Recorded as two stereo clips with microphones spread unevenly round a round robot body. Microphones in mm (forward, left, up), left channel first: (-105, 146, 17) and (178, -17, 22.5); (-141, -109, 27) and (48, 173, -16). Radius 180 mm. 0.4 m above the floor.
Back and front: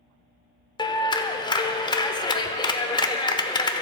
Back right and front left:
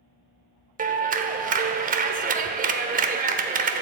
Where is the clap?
85° left, 0.9 m.